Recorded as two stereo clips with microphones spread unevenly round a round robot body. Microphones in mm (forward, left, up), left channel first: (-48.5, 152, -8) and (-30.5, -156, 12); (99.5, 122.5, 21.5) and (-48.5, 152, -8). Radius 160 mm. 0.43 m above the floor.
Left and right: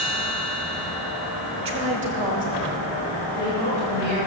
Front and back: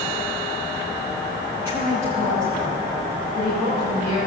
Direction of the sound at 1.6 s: 125° right.